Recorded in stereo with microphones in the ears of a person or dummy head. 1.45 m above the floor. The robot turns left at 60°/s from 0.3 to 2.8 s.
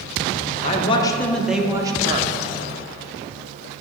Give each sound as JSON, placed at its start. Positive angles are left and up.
{"t": 0.6, "sound": "a man speaking", "azimuth_deg": 45, "distance_m": 0.7}